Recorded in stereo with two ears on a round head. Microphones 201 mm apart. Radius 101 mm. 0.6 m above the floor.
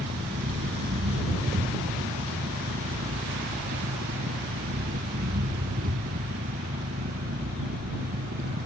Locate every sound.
0.0 s an engine running: 40° right (ahead or behind)